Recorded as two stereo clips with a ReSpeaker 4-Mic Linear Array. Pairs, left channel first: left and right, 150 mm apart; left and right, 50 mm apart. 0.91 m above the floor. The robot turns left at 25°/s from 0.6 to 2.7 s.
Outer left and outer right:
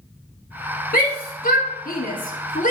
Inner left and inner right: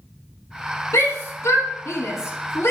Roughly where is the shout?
Left.